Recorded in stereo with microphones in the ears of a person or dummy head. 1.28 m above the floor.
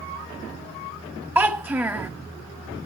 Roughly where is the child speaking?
Centre.